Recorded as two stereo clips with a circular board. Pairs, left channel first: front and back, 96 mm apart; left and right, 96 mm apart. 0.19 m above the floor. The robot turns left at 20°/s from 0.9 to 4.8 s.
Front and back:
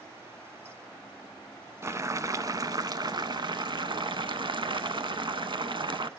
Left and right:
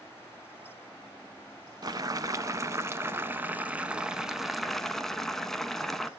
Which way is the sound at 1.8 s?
125° right.